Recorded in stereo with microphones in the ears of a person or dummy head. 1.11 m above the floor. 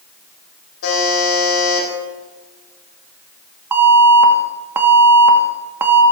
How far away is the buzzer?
About 6.5 m.